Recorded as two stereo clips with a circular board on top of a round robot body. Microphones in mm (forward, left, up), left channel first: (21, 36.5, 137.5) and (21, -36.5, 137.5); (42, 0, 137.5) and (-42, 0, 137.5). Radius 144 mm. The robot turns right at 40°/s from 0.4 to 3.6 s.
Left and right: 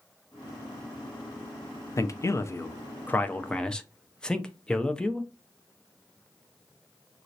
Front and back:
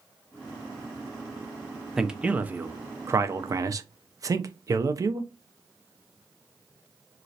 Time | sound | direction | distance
2.0 | a man speaking | 100° left | 0.5 m